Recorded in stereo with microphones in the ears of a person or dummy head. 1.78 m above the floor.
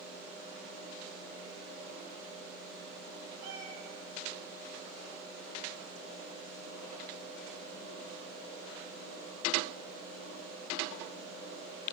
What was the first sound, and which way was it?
A cat meowing, 55° right (ahead or behind).